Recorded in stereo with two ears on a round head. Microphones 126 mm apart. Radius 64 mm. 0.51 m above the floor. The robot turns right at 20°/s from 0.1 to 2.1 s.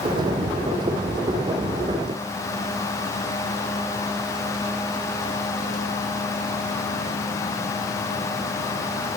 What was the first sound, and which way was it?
Only background noise.